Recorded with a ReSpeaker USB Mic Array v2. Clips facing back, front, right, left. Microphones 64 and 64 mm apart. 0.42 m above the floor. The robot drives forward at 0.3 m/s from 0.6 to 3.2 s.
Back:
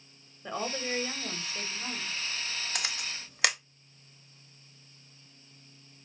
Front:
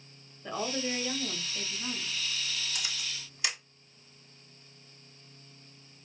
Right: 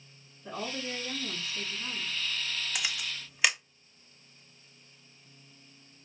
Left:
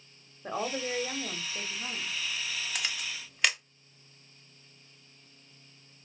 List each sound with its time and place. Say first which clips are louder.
0.4 s a woman speaking: front 1 dB, left 4 dB; 100° left, 1.5 m; by 2.2 s 115° left, 1.7 m
2.8 s a camera shutter: back 3 dB, even; 175° right, 0.7 m